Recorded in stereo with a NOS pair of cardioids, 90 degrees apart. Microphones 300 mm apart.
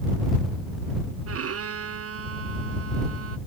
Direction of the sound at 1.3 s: 50° right.